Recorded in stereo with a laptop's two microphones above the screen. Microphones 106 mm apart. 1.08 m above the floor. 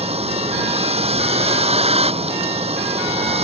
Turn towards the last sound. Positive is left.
turn(degrees=-70)  # may be behind; listen again after turning